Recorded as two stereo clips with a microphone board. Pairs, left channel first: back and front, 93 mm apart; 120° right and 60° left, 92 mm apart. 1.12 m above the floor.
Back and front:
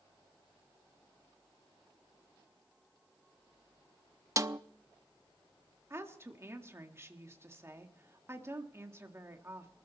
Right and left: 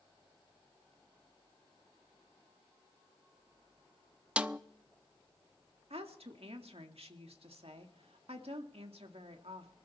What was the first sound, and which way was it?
A snare drum, 10° right.